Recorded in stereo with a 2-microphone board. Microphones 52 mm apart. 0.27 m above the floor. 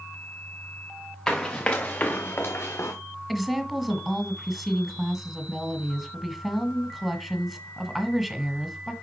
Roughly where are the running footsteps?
Centre.